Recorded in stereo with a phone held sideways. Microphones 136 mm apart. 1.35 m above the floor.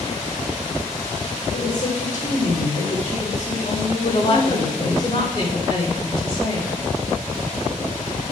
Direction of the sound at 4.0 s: 35° left (ahead or behind).